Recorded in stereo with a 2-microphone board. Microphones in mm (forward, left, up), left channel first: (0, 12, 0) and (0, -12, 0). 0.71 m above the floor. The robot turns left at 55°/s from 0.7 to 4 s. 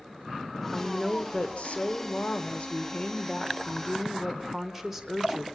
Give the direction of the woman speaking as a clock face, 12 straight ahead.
7 o'clock.